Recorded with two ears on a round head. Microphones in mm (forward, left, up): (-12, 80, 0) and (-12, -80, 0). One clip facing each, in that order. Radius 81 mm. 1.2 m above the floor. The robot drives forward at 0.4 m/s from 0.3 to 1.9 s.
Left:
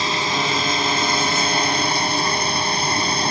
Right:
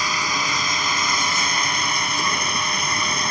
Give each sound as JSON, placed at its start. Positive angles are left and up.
{"t": 0.0, "sound": "running water", "side_deg": 25}